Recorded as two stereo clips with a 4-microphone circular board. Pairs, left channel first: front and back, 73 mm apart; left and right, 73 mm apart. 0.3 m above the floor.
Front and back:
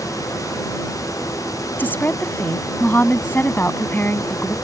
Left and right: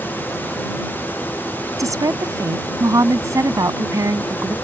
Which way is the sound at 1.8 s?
60° right.